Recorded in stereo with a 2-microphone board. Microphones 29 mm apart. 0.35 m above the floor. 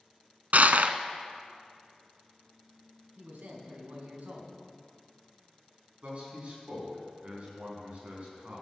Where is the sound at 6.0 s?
50° right (ahead or behind), 4 m.